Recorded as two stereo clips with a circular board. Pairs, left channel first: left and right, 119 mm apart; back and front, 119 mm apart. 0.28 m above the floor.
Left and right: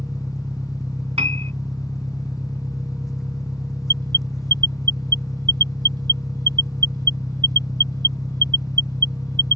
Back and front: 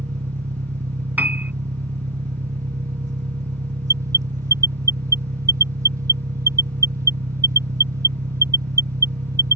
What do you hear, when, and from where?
0.0 s an engine running: straight ahead
1.2 s a piano: 75° right
3.9 s an alarm: 55° right